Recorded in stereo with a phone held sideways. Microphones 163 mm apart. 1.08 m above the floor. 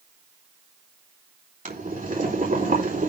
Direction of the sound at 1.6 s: 55° right (ahead or behind).